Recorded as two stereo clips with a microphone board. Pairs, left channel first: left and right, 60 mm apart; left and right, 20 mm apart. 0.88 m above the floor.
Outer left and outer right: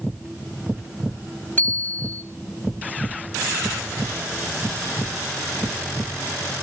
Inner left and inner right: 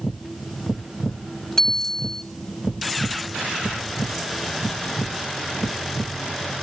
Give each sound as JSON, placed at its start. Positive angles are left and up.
{"t": 1.6, "sound": "a bicycle bell", "side_deg": 30, "distance_m": 3.5}